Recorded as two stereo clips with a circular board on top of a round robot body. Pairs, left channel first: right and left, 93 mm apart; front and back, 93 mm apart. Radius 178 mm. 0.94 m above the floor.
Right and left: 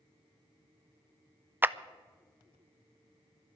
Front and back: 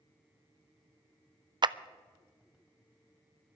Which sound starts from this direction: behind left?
A clap, at 1.6 s.